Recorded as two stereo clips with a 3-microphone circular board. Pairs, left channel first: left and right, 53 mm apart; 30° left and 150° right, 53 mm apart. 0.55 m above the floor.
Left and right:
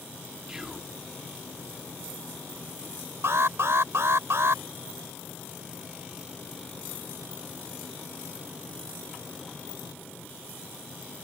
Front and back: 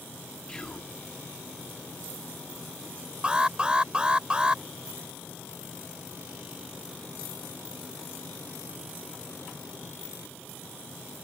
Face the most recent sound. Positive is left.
turn(degrees=-85)